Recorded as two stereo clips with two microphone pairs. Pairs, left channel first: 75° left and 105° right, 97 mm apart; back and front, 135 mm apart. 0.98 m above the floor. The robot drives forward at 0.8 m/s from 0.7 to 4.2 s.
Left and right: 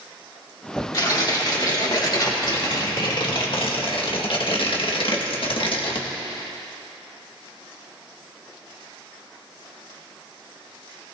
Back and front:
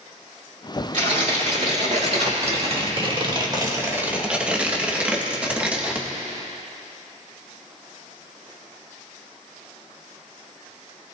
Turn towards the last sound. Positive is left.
turn(degrees=80)